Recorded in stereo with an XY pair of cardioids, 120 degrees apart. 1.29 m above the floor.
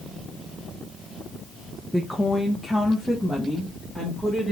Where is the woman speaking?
Straight ahead, 0.6 m; by 4.5 s 5° right, 2.0 m.